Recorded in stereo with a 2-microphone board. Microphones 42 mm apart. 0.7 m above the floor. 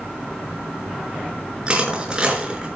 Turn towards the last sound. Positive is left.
turn(degrees=-20)  # may be behind; listen again after turning